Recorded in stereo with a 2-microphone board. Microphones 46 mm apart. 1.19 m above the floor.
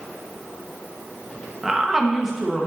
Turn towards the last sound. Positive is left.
turn(degrees=-10)  # may be behind; listen again after turning